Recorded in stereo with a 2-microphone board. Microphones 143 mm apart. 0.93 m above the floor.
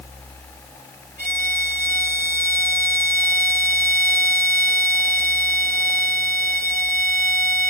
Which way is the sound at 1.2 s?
75° right (ahead or behind).